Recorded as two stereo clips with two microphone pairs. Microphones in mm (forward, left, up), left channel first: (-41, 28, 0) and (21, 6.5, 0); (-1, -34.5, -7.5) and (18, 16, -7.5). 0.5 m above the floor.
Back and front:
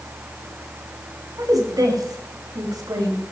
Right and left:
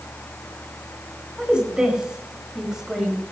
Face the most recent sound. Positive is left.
turn(degrees=-10)